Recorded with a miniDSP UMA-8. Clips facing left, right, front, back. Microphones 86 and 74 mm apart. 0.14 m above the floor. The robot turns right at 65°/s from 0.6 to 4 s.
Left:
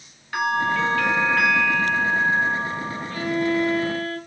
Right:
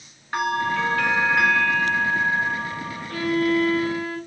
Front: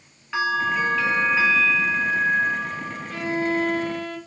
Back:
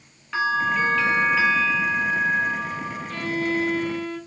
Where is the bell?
85° right, 1.4 m; by 3.2 s 85° left, 1.4 m.